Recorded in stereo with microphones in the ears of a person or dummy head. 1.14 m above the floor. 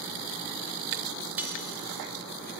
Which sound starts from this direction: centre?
Cutlery clinking, at 1.4 s.